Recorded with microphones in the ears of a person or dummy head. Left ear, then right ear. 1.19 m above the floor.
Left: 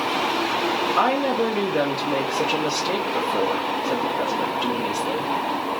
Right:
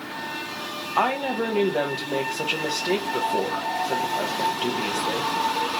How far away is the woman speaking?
About 0.6 m.